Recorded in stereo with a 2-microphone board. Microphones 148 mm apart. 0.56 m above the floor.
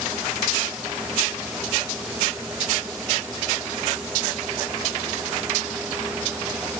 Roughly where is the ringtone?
No ringtone in this recording.